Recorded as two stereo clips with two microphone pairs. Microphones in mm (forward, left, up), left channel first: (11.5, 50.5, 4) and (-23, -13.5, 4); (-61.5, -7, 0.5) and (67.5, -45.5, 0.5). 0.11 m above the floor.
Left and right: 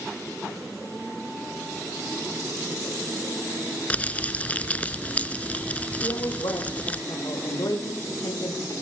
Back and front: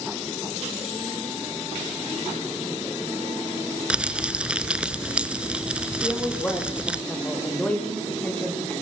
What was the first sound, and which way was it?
Crumpling, 50° left.